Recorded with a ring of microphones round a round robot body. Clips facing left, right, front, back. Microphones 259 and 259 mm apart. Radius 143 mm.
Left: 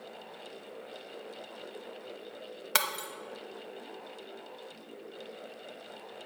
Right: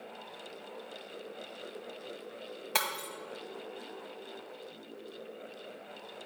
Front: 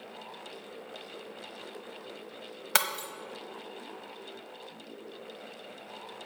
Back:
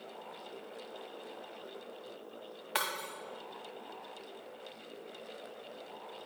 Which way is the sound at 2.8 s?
20° left.